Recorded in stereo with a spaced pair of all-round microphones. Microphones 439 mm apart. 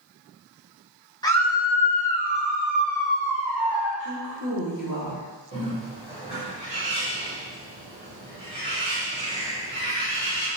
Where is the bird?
80° right, 2.0 m.